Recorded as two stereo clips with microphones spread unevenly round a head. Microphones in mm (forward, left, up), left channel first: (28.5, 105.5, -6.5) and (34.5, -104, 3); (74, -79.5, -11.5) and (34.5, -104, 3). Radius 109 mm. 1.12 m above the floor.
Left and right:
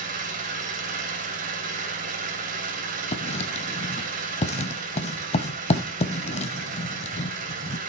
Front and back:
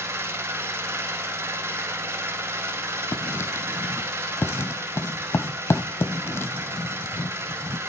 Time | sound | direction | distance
0.0 | an engine running | 145° right | 3 m
3.1 | writing | 45° left | 1.2 m